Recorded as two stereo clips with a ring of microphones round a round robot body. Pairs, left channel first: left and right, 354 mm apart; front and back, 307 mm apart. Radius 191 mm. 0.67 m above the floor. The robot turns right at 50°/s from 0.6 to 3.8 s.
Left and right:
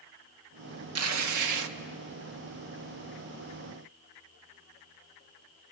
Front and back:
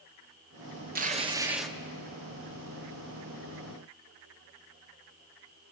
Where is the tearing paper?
125° right, 1.1 m; by 1.7 s 85° right, 1.1 m.